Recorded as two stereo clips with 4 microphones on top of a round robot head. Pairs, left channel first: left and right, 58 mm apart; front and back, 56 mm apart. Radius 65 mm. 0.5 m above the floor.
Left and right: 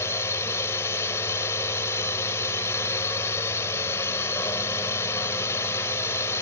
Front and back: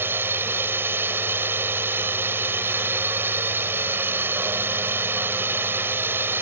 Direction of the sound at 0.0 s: 135° left.